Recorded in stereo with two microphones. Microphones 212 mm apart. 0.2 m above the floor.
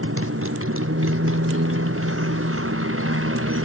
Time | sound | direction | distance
0.0 | a motorcycle | 85° right | ?